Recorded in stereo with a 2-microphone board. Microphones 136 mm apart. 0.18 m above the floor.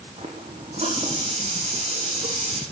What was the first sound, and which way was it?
A running tap, 55° right (ahead or behind).